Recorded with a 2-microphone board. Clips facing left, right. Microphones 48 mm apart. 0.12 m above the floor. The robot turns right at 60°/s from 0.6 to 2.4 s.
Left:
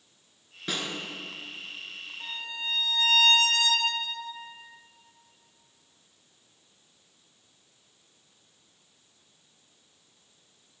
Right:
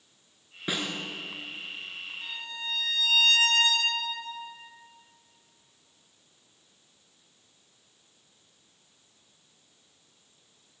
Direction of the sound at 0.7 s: 15° right (ahead or behind).